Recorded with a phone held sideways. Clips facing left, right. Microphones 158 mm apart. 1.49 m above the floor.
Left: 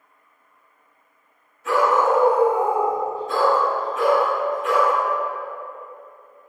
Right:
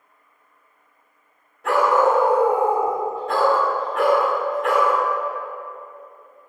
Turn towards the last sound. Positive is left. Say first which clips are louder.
# right 1 dB
turn(degrees=-65)  # may be behind; listen again after turning